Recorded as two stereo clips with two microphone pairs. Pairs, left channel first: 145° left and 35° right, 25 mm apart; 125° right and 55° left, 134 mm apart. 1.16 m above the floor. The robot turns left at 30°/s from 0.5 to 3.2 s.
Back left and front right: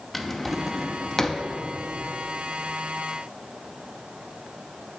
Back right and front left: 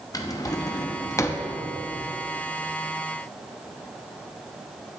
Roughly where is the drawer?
Behind right.